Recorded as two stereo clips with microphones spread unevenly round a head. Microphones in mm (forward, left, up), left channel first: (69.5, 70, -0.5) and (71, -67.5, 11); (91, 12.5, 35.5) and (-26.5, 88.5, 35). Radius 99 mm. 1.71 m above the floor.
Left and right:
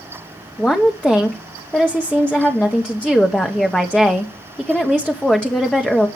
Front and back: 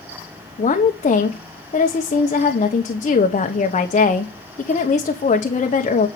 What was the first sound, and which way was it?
A woman speaking, 5° left.